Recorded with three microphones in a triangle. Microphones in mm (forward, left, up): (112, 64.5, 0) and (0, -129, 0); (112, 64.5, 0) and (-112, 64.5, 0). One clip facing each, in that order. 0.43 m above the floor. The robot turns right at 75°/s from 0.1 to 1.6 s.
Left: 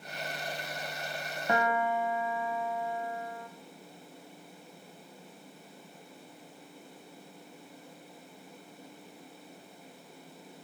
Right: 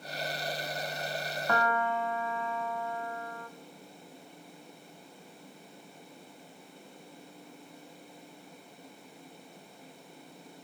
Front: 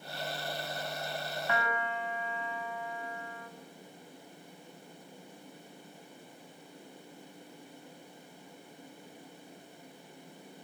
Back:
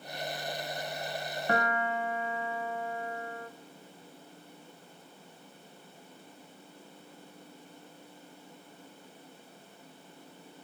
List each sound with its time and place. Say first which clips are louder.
1.5 s a piano: left 2 dB, back 5 dB; 130° left, 1.5 m; by 3.5 s 140° left, 1.5 m